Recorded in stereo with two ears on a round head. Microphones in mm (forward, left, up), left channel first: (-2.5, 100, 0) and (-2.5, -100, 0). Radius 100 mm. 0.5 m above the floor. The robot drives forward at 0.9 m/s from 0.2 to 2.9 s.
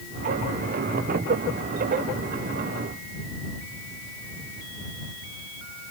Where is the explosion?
No explosion in this recording.